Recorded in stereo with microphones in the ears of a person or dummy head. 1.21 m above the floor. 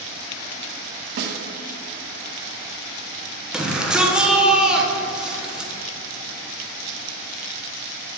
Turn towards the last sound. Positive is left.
turn(degrees=-5)  # may be behind; listen again after turning